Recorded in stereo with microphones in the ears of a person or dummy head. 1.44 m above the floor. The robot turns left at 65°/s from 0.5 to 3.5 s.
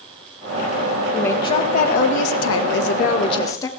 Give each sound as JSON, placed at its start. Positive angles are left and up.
{"t": 1.1, "sound": "a woman speaking", "azimuth_deg": 175, "distance_m": 1.9}